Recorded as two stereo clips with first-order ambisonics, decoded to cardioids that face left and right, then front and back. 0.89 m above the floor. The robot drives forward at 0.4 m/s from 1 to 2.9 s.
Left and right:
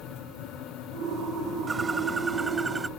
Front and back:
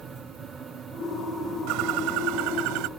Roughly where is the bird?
Behind.